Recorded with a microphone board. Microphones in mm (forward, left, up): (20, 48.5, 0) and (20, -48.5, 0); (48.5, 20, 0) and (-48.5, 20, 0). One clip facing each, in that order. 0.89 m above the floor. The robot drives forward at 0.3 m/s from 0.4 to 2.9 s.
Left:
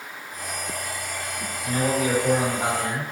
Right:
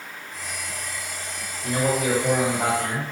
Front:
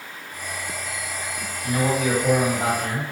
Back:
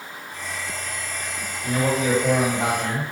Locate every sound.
1.6 s a man speaking: 130° right, 1.3 m; by 3.0 s 140° right, 1.6 m